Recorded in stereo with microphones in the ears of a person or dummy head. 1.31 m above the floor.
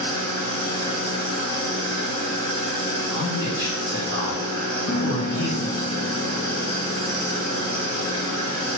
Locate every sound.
0.0 s an engine running: 25° left (ahead or behind), 1.0 m
3.1 s a man speaking: 55° left (ahead or behind), 1.0 m
4.9 s a piano: 50° left (ahead or behind), 0.6 m